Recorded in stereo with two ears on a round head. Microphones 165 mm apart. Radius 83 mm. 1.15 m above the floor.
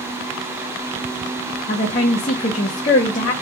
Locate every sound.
1.7 s a woman speaking: 40° left (ahead or behind), 0.9 m